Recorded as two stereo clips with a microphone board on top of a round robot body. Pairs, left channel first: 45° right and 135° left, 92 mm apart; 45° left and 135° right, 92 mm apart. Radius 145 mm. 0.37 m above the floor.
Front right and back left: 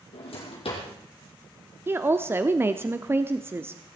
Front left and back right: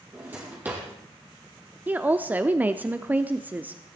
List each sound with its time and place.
0.1 s a drawer: 65° right, 4 m
1.9 s a woman speaking: 170° left, 1.1 m